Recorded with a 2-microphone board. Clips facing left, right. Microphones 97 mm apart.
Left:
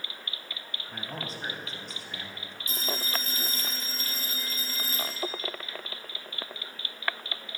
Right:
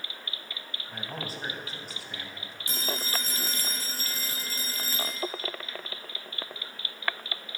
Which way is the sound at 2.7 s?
70° right (ahead or behind).